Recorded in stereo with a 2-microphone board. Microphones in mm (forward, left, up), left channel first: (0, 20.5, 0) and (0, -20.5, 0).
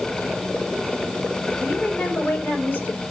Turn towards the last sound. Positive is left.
turn(degrees=45)  # may be behind; listen again after turning